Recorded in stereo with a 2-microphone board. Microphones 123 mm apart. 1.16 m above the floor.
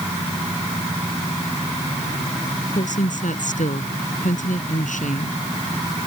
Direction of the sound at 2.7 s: 85° left.